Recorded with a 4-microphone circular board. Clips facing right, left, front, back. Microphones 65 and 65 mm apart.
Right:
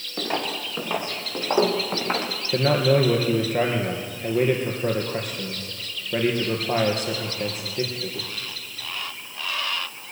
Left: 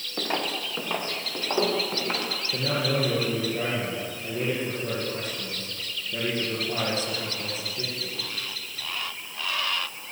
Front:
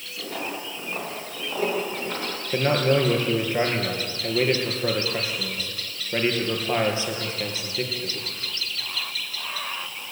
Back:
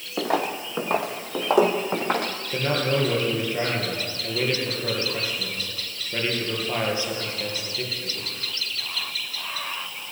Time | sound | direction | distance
0.2 | footsteps | 175° left | 3 m
2.5 | a man speaking | 70° right | 3.5 m